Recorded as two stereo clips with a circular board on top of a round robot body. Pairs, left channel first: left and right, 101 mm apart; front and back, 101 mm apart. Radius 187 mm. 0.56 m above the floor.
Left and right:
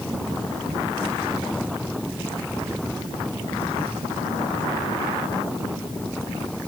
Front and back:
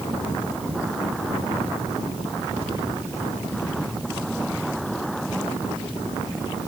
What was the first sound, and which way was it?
Only background noise.